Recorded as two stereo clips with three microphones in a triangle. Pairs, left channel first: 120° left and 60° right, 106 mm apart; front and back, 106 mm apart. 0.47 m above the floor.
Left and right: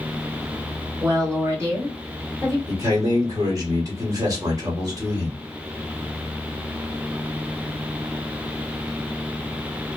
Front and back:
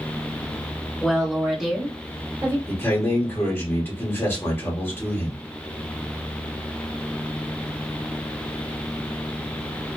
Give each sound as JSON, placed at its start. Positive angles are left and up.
{"t": 1.0, "sound": "a woman speaking", "azimuth_deg": -85, "distance_m": 1.8}
{"t": 2.7, "sound": "a man speaking", "azimuth_deg": -50, "distance_m": 1.3}